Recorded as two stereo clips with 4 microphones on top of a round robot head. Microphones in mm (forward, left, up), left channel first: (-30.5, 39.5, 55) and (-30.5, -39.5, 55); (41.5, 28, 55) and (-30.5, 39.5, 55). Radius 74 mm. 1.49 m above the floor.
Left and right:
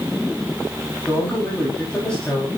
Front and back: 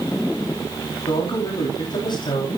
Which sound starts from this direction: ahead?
A man speaking, at 1.1 s.